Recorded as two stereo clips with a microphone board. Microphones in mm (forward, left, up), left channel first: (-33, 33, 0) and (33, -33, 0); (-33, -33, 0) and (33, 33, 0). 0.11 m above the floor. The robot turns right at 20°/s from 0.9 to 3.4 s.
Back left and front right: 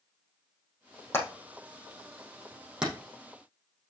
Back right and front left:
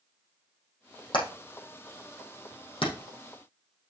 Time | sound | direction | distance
1.1 | hammering | 160° right | 4.5 m